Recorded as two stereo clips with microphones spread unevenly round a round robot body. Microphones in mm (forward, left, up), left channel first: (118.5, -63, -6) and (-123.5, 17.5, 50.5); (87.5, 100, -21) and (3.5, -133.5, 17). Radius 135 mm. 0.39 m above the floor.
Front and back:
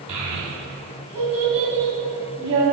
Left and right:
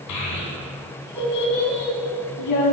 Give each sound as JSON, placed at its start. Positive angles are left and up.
{"t": 0.1, "sound": "a child speaking", "azimuth_deg": 85, "distance_m": 2.0}